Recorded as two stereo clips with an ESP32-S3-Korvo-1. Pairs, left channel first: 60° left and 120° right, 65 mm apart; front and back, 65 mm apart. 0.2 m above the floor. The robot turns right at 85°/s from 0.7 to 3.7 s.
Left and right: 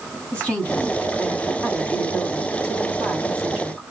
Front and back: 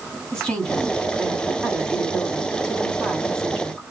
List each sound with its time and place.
0.3 s a woman speaking: 45° left, 1.6 m; by 3.8 s 60° right, 1.6 m